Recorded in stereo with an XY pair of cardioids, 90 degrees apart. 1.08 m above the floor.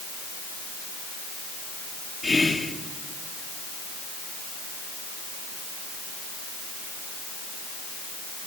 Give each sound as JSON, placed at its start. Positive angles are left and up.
{"t": 2.2, "sound": "whispering", "azimuth_deg": 30, "distance_m": 1.0}